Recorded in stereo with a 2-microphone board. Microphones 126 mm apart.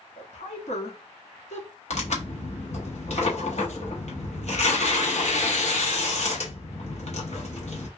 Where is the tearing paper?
60° left (ahead or behind), 0.8 m.